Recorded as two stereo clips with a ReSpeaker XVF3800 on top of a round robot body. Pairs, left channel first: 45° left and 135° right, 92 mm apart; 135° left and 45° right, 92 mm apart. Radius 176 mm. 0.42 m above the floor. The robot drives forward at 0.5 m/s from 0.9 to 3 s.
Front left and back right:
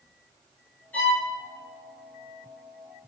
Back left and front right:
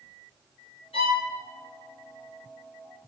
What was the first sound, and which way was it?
A violin, 120° left.